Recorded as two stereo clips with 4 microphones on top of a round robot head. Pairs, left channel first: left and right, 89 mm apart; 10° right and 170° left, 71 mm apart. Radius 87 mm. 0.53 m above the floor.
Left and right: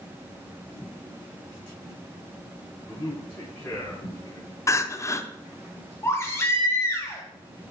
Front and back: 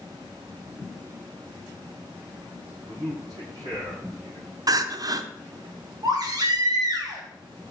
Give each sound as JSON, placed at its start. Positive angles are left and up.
{"t": 2.9, "sound": "a man speaking", "azimuth_deg": 150, "distance_m": 4.5}
{"t": 4.7, "sound": "crying", "azimuth_deg": 145, "distance_m": 0.7}
{"t": 6.0, "sound": "a baby crying", "azimuth_deg": 150, "distance_m": 2.0}